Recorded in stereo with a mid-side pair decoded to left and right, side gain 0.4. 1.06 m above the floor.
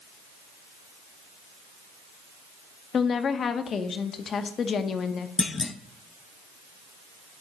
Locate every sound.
2.9 s a woman speaking: 55° left, 0.9 m
5.4 s a clunk: 40° left, 0.6 m